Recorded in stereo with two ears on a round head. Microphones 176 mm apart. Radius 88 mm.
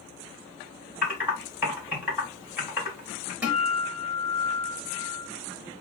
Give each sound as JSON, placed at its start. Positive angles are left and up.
{"t": 1.0, "sound": "typing on a keyboard", "side_deg": -10, "distance_m": 1.7}
{"t": 3.4, "sound": "a guitar", "side_deg": -10, "distance_m": 1.0}